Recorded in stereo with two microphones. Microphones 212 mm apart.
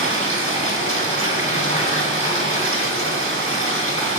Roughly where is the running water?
Right.